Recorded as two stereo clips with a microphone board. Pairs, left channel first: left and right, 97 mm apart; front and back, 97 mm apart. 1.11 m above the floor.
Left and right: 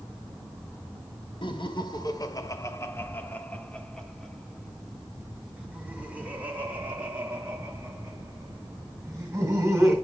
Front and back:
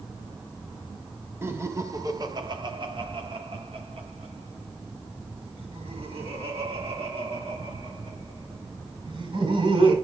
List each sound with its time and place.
1.4 s laughter: 115° left, 1.4 m; by 9.9 s 155° right, 4.5 m